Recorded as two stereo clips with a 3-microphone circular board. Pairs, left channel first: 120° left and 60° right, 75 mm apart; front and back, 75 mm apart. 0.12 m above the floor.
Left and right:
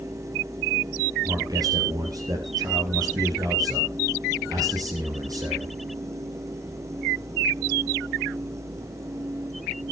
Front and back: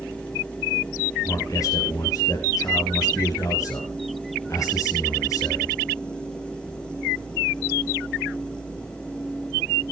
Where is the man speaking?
35° right, 2 m.